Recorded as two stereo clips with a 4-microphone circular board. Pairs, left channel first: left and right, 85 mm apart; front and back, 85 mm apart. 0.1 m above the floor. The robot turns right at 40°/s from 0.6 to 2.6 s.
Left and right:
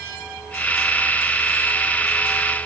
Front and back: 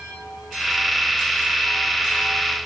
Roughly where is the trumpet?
No trumpet in this recording.